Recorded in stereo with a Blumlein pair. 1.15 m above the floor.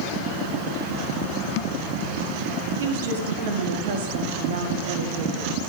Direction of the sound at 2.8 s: 60° right.